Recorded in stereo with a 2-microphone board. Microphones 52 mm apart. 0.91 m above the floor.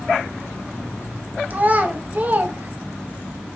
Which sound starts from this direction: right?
A child speaking, at 1.5 s.